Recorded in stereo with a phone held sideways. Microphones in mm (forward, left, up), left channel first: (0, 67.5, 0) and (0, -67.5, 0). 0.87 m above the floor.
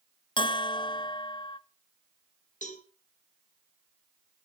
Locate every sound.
0.4 s a bell: 35° left (ahead or behind), 0.8 m
2.6 s a cowbell: 70° left (ahead or behind), 3 m